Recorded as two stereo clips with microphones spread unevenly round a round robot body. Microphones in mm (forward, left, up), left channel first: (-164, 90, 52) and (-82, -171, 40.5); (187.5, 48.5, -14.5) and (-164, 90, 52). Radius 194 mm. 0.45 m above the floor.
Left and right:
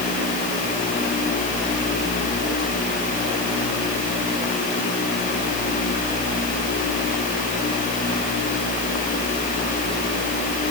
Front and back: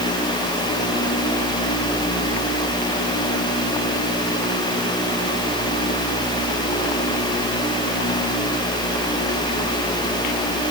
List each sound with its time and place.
Only background noise.